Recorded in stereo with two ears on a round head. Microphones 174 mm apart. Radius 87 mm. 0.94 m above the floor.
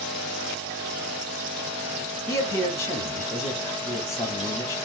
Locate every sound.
2.3 s a man speaking: 15° left (ahead or behind), 0.8 m